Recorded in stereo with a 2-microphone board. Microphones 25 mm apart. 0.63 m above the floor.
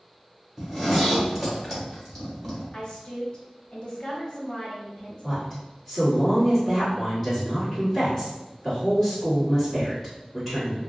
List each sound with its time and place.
0.6 s a zipper: 5° left (ahead or behind), 1.4 m
2.7 s a woman speaking: 40° left (ahead or behind), 0.9 m
5.2 s a woman speaking: 15° left (ahead or behind), 1.5 m